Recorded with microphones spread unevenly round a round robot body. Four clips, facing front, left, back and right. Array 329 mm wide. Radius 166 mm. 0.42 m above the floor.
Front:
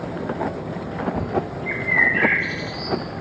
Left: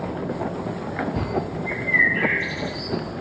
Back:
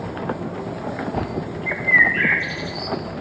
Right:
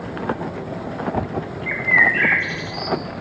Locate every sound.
1.7 s a bird: 145° right, 1.2 m